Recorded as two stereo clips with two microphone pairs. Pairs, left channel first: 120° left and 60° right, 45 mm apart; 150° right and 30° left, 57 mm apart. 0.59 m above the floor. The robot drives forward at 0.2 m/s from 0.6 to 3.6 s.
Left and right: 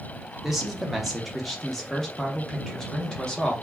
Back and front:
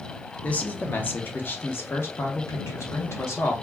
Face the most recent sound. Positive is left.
turn(degrees=-165)